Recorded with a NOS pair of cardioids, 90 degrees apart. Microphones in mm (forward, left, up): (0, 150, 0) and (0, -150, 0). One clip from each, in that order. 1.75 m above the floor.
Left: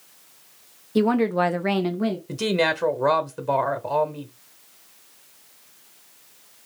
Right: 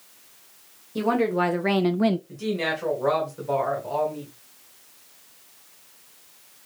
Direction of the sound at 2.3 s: 65° left.